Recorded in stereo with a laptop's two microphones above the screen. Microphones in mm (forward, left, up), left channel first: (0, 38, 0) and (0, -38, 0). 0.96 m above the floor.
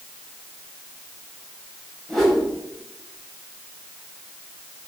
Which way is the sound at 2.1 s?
5° left (ahead or behind).